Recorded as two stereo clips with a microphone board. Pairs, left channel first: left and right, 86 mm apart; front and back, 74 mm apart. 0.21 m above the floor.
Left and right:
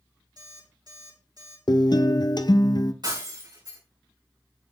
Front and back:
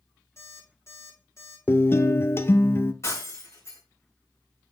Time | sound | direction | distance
0.4 | an alarm clock | 50° right | 7 m
1.7 | a guitar | 55° left | 0.7 m
3.0 | breaking glass | 50° right | 6.5 m